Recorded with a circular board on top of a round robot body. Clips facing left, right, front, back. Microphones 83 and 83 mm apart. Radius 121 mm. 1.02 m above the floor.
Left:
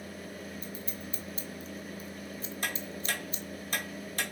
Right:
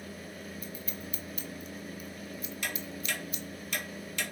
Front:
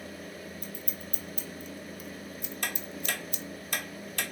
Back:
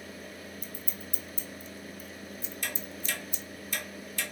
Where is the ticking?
35° left, 1.0 m.